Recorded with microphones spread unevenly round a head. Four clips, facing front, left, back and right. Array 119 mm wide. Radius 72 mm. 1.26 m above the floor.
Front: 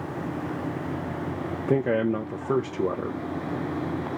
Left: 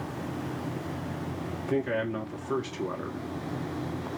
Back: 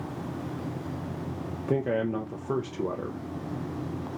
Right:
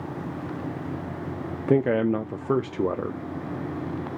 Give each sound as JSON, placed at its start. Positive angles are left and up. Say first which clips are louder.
{"t": 1.7, "sound": "a man speaking", "louder": "right 8 dB, front 4 dB", "azimuth_deg": -40, "distance_m": 0.8}